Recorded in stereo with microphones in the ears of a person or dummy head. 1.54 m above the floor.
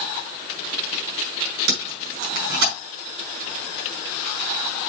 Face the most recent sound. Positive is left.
turn(degrees=-70)  # may be behind; listen again after turning